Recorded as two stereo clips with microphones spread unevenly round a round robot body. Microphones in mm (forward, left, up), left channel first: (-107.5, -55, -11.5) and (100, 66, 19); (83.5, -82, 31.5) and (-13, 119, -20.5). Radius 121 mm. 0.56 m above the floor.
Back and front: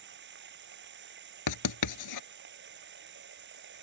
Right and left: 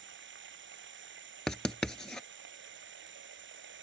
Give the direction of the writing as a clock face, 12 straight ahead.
5 o'clock.